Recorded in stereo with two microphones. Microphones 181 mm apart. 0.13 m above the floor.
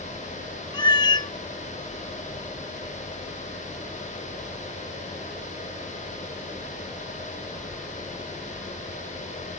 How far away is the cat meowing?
About 0.6 m.